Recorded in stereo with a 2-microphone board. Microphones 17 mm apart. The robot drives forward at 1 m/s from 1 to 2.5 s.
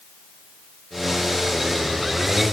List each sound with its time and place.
Only background noise.